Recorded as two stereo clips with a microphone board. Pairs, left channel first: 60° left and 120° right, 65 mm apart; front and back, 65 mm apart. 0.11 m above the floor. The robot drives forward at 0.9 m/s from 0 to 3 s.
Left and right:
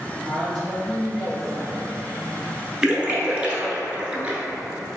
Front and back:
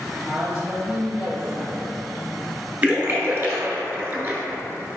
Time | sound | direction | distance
0.2 | a woman speaking | 115° left | 1.2 m
2.8 | a splash | straight behind | 0.6 m